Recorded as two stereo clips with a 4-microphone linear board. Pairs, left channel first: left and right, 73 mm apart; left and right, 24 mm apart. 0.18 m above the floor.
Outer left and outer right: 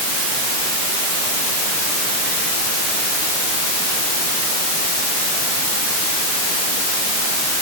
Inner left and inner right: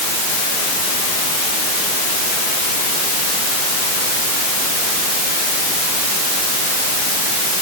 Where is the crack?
No crack in this recording.